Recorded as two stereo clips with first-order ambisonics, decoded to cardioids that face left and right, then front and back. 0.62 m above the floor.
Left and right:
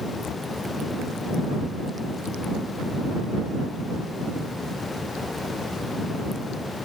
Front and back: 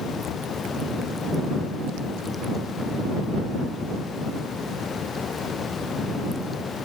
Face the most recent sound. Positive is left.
turn(degrees=40)